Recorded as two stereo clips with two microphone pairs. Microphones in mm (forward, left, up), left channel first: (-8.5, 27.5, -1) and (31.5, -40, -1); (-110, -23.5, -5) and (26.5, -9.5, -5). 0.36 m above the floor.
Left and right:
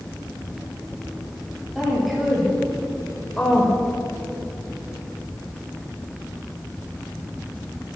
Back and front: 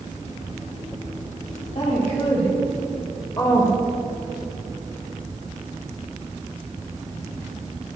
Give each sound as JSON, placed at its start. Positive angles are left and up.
{"t": 1.8, "sound": "a woman speaking", "azimuth_deg": -140, "distance_m": 2.5}